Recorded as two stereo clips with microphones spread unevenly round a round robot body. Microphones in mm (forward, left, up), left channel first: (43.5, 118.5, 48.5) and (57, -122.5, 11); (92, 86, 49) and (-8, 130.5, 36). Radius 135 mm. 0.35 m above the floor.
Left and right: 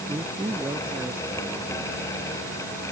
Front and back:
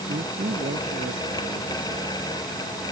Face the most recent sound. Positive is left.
turn(degrees=-170)